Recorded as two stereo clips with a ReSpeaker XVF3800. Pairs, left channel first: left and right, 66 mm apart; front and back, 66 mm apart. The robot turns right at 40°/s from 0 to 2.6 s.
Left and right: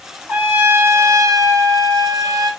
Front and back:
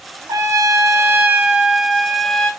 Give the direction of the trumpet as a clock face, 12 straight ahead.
5 o'clock.